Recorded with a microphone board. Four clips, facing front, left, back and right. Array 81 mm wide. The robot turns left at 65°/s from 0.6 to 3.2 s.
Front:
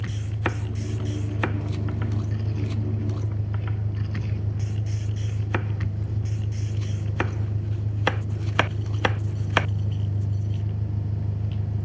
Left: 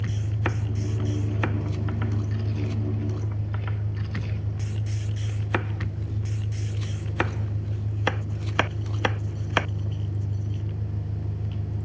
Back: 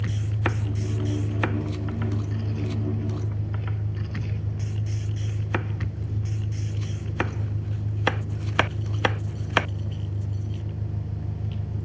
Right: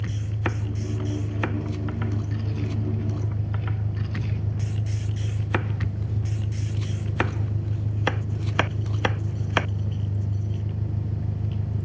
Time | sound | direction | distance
0.0 | an engine running | 115° left | 5 m